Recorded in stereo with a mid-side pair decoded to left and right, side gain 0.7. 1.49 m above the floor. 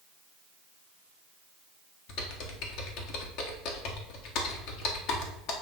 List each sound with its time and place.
2.1 s typing on a keyboard: 65° left, 1.6 m